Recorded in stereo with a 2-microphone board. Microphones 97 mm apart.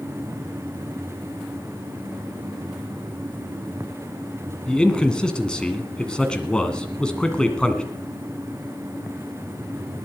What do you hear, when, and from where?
4.7 s a man speaking: 10° left (ahead or behind), 1.8 m